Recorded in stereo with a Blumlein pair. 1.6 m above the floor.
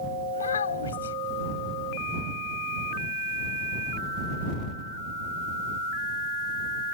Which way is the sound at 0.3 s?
70° left.